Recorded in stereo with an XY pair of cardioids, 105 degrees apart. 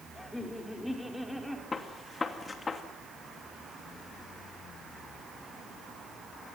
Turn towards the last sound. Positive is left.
turn(degrees=30)